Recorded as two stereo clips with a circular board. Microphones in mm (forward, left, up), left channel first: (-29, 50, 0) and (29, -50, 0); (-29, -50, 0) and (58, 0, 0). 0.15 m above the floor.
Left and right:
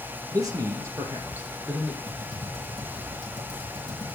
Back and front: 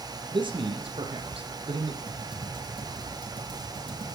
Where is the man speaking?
5° right, 3.5 m; by 2.0 s 20° left, 5 m.